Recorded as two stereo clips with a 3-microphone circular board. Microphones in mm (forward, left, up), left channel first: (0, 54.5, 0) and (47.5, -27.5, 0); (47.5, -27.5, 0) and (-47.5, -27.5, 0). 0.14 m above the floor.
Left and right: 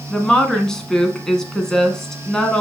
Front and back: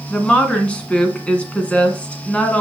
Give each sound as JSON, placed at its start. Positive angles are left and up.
{"t": 0.1, "sound": "a woman speaking", "azimuth_deg": 50, "distance_m": 1.5}